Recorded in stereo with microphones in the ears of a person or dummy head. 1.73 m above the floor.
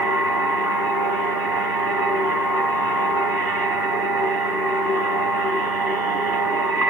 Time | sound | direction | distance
0.0 | a machine running | 10° right (ahead or behind) | 1.4 m